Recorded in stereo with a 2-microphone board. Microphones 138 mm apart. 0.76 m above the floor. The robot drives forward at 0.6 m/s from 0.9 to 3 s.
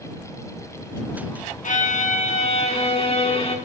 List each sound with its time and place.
1.6 s a violin: 65° left (ahead or behind), 1.1 m; by 3.6 s 45° left (ahead or behind), 1.4 m